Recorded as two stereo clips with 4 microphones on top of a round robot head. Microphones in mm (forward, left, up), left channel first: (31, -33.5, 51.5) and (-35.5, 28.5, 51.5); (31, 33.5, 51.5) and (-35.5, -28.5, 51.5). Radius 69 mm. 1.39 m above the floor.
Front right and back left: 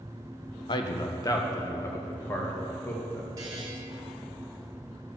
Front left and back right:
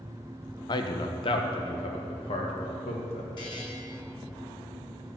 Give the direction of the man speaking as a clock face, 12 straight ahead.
12 o'clock.